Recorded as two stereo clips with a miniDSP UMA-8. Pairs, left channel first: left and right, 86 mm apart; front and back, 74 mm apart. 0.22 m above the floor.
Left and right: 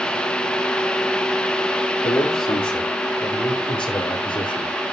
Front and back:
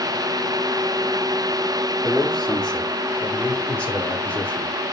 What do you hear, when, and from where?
2.0 s a man speaking: 85° left, 7 m; by 4.8 s 65° left, 8 m